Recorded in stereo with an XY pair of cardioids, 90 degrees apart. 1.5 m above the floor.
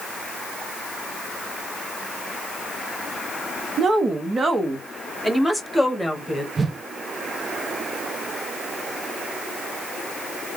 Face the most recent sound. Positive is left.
turn(degrees=-35)